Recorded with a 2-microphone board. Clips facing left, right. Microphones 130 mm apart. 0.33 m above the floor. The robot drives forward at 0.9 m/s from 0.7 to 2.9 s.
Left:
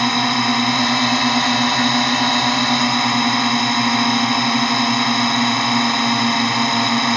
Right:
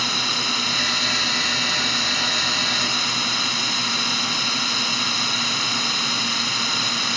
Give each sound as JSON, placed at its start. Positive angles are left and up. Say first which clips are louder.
{"t": 0.0, "sound": "a drone", "louder": "left 11 dB", "side_deg": 60}